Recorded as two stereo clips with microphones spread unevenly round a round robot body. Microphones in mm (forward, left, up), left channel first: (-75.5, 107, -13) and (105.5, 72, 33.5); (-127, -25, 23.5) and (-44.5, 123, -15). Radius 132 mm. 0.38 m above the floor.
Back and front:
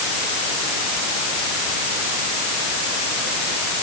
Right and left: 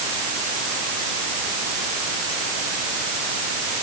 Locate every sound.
Only background noise.